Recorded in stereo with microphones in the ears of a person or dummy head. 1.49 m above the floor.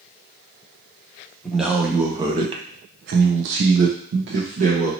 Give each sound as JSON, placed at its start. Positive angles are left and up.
{"t": 1.4, "sound": "a man speaking", "side_deg": 0, "distance_m": 0.9}